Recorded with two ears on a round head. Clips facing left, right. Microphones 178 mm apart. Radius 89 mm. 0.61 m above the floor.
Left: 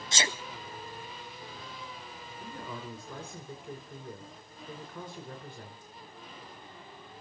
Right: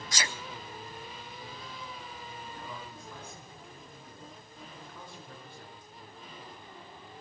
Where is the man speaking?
50° left (ahead or behind), 2.5 m.